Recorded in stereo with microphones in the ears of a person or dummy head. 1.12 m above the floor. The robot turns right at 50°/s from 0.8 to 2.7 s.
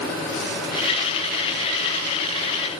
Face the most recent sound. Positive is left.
No sound to turn to.